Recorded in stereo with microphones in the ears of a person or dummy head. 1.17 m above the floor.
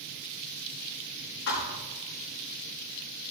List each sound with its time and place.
1.5 s a thud: 65° left (ahead or behind), 5 m